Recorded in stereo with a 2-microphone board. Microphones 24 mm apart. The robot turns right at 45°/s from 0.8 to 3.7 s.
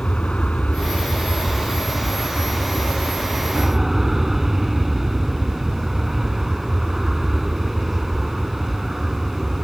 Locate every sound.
0.0 s an aircraft: 65° left; by 9.6 s 165° right